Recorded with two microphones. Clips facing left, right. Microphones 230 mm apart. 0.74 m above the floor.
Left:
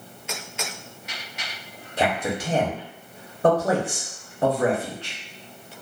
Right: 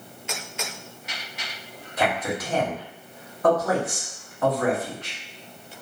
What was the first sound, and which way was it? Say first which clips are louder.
A man speaking: left 1 dB; 30° left (ahead or behind).